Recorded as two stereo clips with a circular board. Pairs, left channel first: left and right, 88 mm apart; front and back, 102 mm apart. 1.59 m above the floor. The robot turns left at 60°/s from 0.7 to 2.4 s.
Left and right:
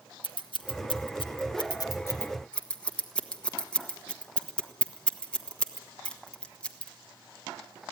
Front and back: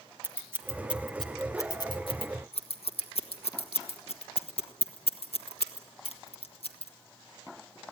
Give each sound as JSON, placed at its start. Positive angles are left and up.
{"t": 0.2, "sound": "scissors", "azimuth_deg": 115, "distance_m": 1.3}